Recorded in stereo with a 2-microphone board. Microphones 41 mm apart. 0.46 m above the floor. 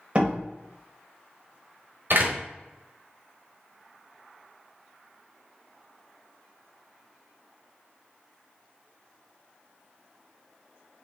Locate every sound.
0.1 s a door slam: 30° right (ahead or behind), 1.8 m
2.1 s a door slam: 60° right (ahead or behind), 1.2 m